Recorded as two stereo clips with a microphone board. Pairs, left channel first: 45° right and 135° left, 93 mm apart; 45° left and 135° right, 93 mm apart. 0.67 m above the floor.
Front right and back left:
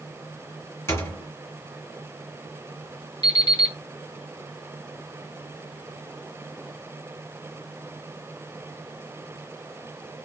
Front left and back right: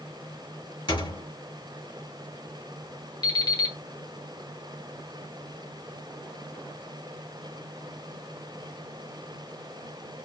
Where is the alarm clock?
Straight ahead, 1.4 m.